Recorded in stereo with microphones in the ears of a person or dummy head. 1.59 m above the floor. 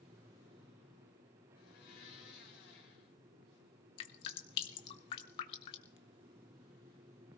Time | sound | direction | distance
1.6 | a blender | 60° left (ahead or behind) | 2.5 m
4.0 | dripping | 35° left (ahead or behind) | 0.8 m